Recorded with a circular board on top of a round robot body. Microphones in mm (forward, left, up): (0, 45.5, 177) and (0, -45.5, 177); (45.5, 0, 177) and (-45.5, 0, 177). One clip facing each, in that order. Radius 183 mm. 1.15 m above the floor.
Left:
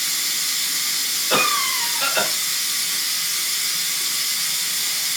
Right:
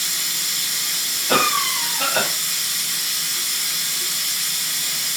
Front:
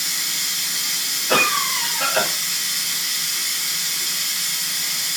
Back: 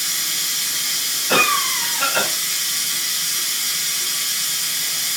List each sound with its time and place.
0.0 s running water: 35° right, 1.5 m
1.3 s a cough: 85° right, 2.5 m